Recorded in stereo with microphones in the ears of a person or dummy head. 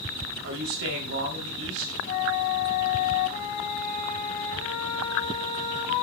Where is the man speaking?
75° right (ahead or behind), 3.5 m.